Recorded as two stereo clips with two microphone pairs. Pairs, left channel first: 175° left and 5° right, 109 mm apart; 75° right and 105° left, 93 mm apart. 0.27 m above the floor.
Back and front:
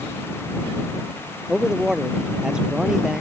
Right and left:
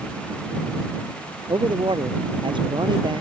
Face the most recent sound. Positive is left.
turn(degrees=80)